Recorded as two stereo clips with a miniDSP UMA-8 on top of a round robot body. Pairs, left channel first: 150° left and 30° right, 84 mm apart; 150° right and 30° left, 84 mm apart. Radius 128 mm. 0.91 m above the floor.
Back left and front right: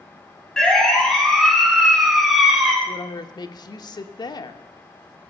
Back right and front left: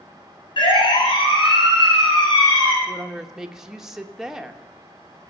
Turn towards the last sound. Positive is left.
turn(degrees=115)